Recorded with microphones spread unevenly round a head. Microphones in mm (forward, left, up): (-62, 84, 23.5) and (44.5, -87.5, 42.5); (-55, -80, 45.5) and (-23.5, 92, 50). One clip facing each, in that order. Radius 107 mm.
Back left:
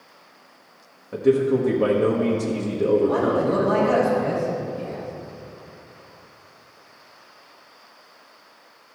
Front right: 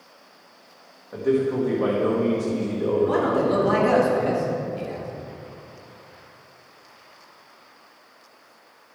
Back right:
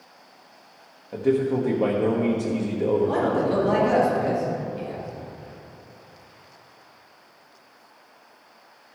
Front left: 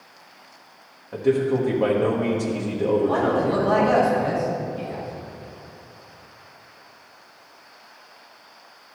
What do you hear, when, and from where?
1.1 s a man speaking: straight behind, 1.2 m
3.0 s a man speaking: 55° right, 3 m